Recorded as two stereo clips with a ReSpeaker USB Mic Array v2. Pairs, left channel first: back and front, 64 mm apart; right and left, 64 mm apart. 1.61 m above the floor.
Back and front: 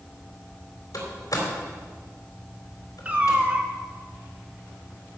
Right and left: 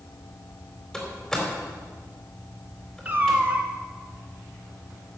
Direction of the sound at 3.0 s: 50° left.